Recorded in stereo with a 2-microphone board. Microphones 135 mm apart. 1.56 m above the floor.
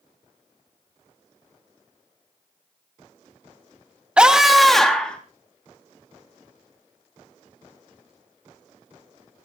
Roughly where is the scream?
Centre.